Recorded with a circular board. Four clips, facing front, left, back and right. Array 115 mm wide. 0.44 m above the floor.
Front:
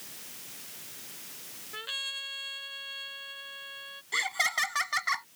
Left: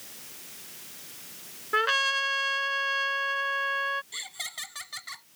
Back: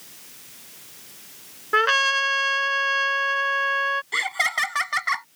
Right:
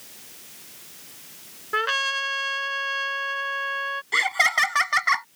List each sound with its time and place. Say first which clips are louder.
1.7 s a trumpet: right 1 dB, back 24 dB; straight behind
4.1 s laughter: right 21 dB, back 6 dB; 110° right